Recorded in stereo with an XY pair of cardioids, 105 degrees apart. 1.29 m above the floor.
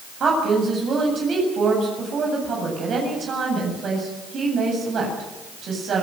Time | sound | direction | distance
0.2 | a woman speaking | 55° right | 8 m